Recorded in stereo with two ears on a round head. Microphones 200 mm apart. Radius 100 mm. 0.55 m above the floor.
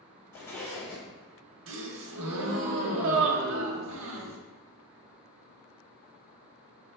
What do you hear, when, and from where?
0.3 s a zipper: 10° left (ahead or behind), 0.8 m
1.7 s a gasp: 60° right (ahead or behind), 0.6 m